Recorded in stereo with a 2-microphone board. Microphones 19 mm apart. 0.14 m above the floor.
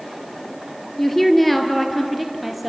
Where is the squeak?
No squeak in this recording.